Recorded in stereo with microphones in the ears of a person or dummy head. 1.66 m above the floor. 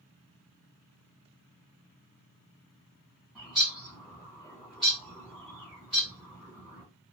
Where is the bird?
Centre (ahead or behind), 0.9 m.